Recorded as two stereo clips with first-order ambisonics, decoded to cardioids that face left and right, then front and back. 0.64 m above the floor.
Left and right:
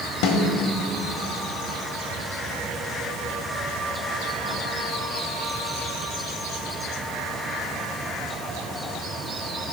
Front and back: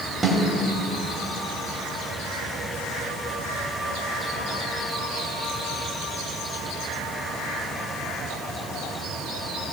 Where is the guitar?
I don't hear a guitar.